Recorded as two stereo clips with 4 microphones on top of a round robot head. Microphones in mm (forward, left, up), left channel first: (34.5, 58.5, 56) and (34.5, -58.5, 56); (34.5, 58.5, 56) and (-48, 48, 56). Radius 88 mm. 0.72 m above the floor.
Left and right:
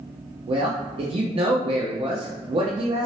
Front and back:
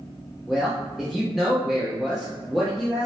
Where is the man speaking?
85° right, 0.6 m.